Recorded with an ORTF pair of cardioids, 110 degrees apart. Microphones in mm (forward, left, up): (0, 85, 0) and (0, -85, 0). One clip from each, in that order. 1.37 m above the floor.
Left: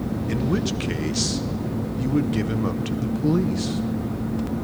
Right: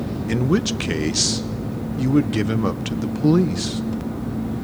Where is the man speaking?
30° right, 0.9 m.